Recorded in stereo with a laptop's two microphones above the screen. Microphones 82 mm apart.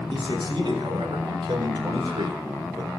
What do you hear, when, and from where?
0.1 s a man speaking: 80° right, 4.5 m; by 2.9 s 75° right (ahead or behind), 3.5 m